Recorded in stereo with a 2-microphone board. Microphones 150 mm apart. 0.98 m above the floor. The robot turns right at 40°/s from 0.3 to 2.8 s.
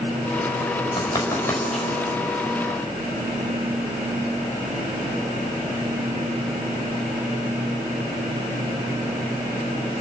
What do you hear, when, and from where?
1.0 s writing: 35° left (ahead or behind), 5.5 m; by 1.9 s centre (ahead or behind), 5.5 m